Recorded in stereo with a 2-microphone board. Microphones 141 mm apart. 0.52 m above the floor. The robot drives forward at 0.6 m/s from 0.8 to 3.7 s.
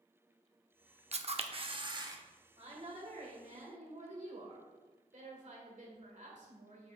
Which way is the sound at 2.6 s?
50° right (ahead or behind).